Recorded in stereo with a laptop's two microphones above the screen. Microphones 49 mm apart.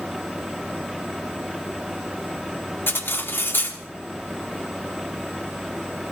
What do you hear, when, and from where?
0.0 s a fan: 5° right (ahead or behind), 1.4 m
2.9 s cutlery clinking: 45° left (ahead or behind), 1.1 m